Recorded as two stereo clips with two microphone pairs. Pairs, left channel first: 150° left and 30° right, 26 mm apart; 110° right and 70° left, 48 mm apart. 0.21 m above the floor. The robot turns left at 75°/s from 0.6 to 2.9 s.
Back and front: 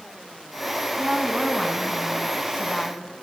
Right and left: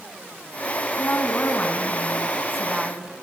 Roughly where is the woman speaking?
Right.